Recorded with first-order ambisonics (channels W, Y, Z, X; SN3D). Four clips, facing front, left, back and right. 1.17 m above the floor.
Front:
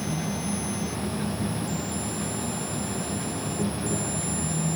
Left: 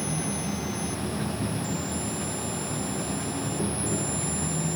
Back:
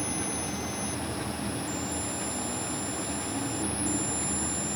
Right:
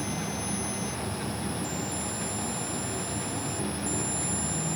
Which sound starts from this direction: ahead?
An insect, at 0.0 s.